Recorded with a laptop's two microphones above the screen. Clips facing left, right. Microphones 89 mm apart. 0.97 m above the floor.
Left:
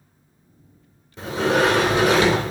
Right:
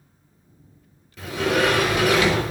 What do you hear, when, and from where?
1.2 s a sliding door: 25° left (ahead or behind), 0.8 m